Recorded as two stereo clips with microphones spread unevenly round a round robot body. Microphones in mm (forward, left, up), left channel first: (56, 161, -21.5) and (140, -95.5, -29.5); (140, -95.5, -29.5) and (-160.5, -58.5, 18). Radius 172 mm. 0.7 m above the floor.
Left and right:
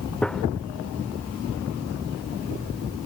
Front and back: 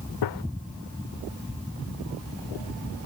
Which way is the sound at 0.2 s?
20° left.